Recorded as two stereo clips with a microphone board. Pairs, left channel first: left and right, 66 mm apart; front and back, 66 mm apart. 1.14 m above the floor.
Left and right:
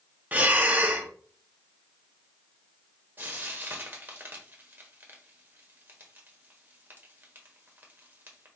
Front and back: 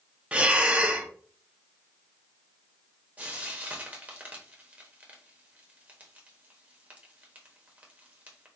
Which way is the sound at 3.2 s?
130° right.